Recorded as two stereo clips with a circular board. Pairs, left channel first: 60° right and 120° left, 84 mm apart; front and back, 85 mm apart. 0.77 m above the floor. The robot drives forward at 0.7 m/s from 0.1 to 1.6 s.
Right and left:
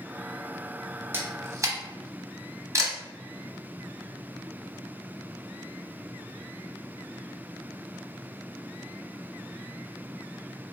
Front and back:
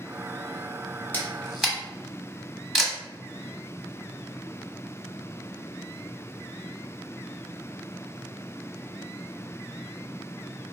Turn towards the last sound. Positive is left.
turn(degrees=90)